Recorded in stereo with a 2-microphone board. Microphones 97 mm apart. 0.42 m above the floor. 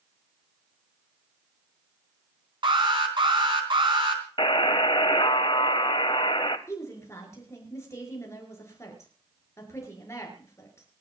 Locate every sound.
2.6 s an alarm: 60° right (ahead or behind), 3.5 m
4.4 s a buzzer: 65° left (ahead or behind), 0.9 m
6.7 s a woman speaking: 30° left (ahead or behind), 6 m